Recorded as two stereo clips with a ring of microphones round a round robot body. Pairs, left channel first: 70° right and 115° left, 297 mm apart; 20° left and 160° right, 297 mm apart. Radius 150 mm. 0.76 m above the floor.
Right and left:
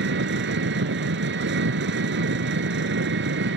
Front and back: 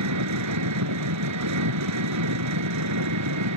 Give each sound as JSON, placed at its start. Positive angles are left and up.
{"t": 0.0, "sound": "an engine running", "azimuth_deg": 165}